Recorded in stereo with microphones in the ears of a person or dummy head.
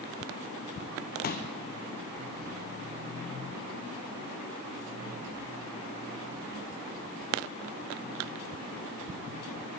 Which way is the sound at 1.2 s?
45° left (ahead or behind).